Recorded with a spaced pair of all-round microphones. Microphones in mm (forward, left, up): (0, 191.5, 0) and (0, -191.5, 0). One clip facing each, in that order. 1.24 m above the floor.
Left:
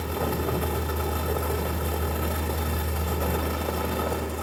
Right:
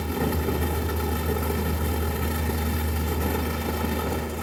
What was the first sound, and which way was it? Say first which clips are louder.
A fan: right 2 dB; 35° right (ahead or behind).